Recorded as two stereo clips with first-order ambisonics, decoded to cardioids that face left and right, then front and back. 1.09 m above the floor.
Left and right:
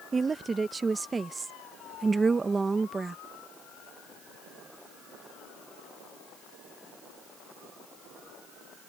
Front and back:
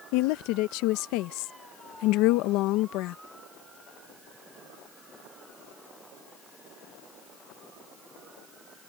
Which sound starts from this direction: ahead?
A woman speaking, at 0.1 s.